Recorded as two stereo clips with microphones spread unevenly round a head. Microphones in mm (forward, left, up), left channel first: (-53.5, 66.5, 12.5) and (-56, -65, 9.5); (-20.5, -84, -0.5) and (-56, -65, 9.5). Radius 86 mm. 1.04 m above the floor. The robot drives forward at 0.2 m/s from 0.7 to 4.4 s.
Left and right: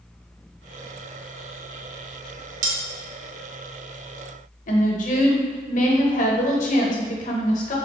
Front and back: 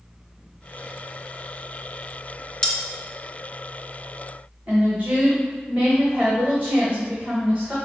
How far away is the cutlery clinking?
About 0.7 m.